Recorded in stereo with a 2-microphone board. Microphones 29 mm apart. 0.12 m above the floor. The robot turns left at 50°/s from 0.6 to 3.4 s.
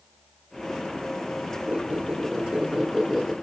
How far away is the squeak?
About 5.5 m.